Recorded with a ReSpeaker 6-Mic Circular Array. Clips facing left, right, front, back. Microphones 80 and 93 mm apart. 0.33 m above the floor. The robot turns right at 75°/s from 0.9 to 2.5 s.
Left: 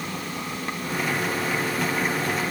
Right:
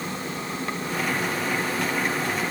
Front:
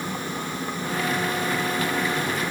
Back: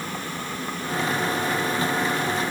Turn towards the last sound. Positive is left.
No sound to turn to.